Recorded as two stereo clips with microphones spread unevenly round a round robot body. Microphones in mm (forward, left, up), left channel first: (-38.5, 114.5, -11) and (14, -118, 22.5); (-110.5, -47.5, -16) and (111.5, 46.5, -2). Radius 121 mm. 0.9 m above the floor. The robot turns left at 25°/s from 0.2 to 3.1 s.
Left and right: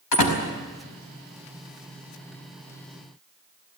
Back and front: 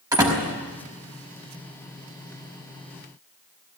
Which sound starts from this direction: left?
A door slam, at 0.1 s.